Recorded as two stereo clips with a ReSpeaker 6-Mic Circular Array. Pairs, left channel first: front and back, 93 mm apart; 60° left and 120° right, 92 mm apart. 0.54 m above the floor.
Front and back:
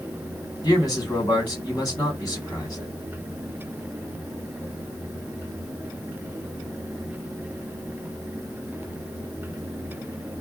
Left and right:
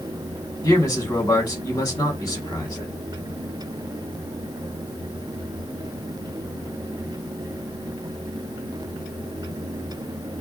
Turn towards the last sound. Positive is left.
turn(degrees=30)